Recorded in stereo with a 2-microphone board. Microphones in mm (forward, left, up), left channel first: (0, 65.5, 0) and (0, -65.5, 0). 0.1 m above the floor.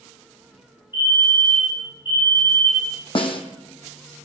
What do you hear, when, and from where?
0.9 s a fire alarm: 35° left (ahead or behind), 6 m
3.1 s a snare drum: 40° left (ahead or behind), 1.4 m